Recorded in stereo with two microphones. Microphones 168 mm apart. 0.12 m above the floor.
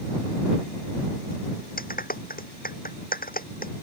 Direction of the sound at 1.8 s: 60° left (ahead or behind).